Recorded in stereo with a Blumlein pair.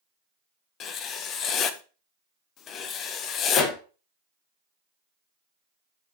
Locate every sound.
0.8 s writing: 30° left, 0.7 m
3.5 s a pop: 30° left, 0.9 m